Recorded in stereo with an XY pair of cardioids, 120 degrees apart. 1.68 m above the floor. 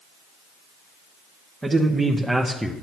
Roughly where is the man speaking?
Ahead.